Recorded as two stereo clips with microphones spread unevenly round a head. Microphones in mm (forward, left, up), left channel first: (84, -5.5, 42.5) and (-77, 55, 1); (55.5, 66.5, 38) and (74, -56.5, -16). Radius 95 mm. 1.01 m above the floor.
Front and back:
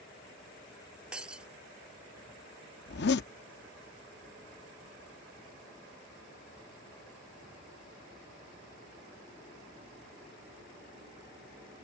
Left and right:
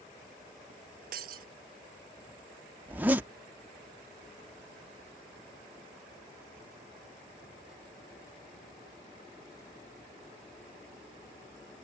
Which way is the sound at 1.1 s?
115° right.